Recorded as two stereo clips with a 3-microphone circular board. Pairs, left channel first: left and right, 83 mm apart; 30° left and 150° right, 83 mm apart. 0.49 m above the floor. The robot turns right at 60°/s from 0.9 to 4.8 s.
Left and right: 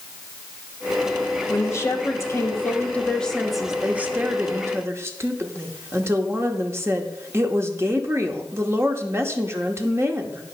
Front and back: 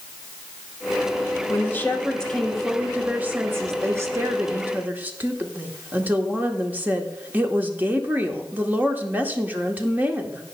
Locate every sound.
1.5 s a woman speaking: 60° left, 1.1 m; by 10.4 s 100° right, 1.1 m